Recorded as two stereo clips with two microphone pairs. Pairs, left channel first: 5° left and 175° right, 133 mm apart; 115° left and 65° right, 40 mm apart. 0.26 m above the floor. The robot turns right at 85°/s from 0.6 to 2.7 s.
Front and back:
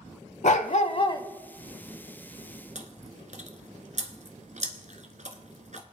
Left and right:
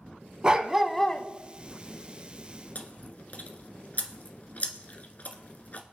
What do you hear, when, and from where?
0.4 s a dog barking: 5° left, 0.7 m; by 1.3 s 60° left, 0.7 m
2.8 s chewing: 165° left, 1.1 m